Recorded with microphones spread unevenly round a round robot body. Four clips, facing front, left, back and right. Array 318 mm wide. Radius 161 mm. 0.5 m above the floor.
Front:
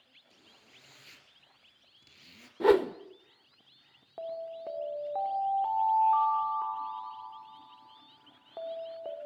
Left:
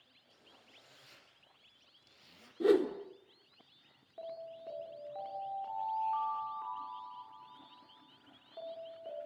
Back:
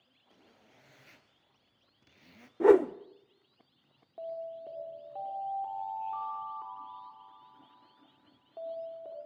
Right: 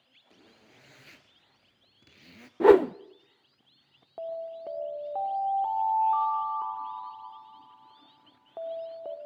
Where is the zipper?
95° right, 2.5 m.